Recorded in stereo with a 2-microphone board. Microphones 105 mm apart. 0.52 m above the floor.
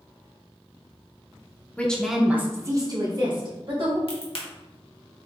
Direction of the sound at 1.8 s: 15° left (ahead or behind).